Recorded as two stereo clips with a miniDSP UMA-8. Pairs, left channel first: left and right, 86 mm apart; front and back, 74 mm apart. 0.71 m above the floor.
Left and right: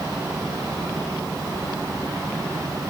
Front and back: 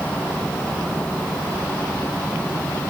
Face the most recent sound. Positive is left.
No sound to turn to.